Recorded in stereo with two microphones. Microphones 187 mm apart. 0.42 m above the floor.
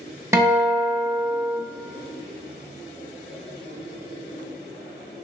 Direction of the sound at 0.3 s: 15° right (ahead or behind).